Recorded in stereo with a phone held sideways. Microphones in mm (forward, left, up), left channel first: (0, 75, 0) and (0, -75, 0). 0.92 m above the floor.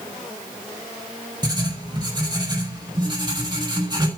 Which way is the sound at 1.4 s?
30° right (ahead or behind).